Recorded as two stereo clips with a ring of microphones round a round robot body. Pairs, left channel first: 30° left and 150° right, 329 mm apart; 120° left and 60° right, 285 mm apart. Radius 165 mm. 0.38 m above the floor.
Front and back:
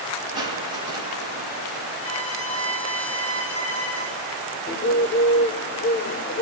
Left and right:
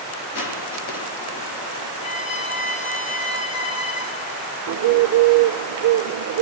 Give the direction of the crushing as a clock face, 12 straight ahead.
8 o'clock.